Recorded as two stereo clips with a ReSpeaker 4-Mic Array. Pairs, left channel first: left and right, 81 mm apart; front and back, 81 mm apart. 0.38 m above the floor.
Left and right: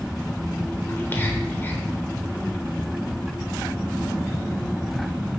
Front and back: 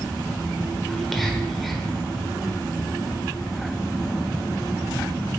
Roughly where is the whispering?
Left.